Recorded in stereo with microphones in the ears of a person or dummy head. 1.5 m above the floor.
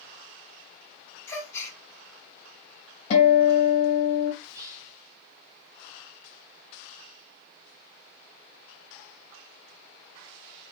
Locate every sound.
1.3 s a gasp: 15° left (ahead or behind), 1.6 m
3.1 s a guitar: 40° left (ahead or behind), 1.6 m
4.4 s whispering: 20° right (ahead or behind), 1.2 m